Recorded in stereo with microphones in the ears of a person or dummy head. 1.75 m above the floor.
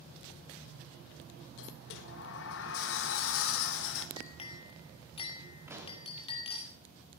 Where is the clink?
35° left (ahead or behind), 2.5 m.